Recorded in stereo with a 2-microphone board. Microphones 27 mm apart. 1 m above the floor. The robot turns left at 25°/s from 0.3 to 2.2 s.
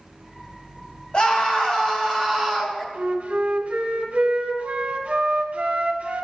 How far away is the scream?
About 2.5 m.